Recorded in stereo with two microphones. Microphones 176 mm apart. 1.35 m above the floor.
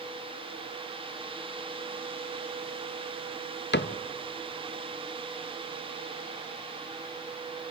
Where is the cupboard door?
85° left, 0.6 m.